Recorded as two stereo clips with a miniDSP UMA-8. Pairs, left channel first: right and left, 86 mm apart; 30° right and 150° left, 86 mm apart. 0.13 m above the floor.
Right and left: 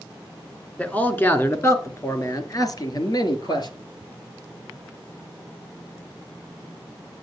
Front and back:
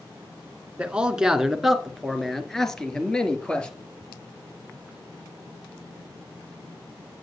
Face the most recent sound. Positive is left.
turn(degrees=-105)